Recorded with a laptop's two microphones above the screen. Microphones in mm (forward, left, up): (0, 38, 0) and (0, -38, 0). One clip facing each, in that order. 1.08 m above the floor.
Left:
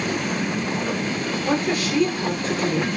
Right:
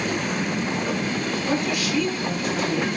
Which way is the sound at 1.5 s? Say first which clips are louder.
Left 3 dB; 40° left (ahead or behind).